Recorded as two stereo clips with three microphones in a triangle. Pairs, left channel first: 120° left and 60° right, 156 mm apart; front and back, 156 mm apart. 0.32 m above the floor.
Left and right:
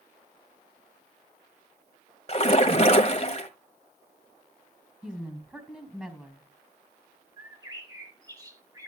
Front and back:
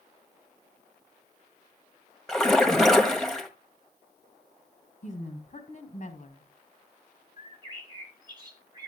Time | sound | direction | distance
2.3 | a splash | 85° left | 1.3 m
5.0 | a woman speaking | 25° left | 2.5 m
7.4 | a bird | 125° right | 1.8 m